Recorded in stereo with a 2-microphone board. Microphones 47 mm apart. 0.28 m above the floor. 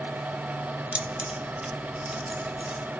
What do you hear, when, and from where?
0.9 s keys jangling: 25° right (ahead or behind), 0.7 m; by 2.8 s centre (ahead or behind), 1.1 m